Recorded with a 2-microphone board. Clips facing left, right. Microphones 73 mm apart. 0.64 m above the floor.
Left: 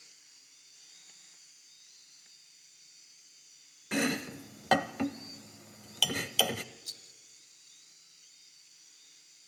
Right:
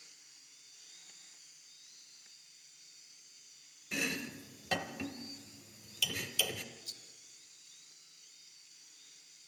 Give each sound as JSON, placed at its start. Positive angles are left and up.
{"t": 3.9, "sound": "chopping", "side_deg": 65, "distance_m": 0.8}
{"t": 6.8, "sound": "a rattle", "side_deg": 70, "distance_m": 0.8}